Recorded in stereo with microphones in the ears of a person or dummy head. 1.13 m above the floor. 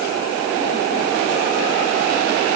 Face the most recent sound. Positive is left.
No sound to turn to.